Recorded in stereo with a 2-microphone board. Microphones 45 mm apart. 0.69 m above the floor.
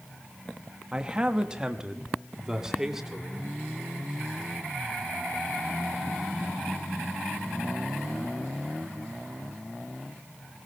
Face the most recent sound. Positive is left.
turn(degrees=-10)  # may be behind; listen again after turning